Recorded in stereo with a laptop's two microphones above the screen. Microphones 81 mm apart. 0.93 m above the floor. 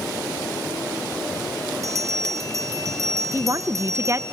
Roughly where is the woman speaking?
Right.